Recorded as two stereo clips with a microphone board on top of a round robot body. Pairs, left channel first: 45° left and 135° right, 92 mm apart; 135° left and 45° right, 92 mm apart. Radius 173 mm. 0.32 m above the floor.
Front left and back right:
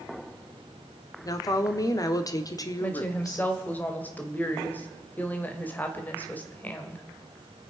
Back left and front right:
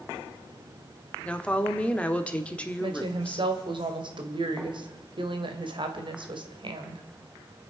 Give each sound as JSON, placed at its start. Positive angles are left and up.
{"t": 1.2, "sound": "a woman speaking", "azimuth_deg": 65, "distance_m": 1.6}
{"t": 2.8, "sound": "a woman speaking", "azimuth_deg": -25, "distance_m": 2.0}